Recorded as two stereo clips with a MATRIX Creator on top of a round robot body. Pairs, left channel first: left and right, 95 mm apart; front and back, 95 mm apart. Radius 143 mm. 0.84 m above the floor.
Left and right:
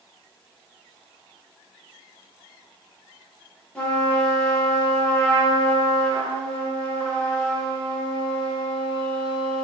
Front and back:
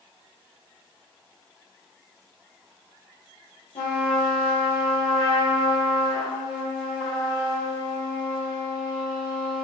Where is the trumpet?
10° left, 0.7 m.